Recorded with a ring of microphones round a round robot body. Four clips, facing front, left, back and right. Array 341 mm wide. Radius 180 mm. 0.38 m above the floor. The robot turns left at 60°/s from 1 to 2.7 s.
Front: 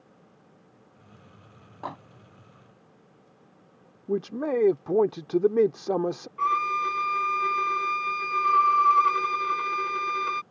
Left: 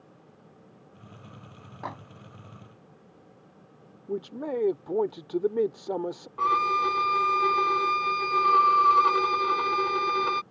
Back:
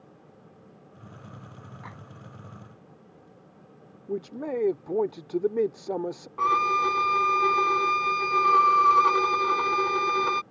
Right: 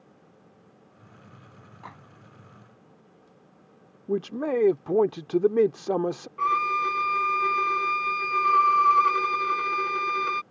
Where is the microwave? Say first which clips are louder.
Left 8 dB, front 11 dB; 35° left; by 2.0 s 25° left.